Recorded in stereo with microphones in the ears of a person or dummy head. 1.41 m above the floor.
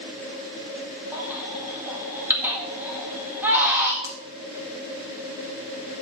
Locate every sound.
1.1 s a baby crying: 5° right (ahead or behind), 1.9 m
4.0 s a finger snap: 15° right (ahead or behind), 1.5 m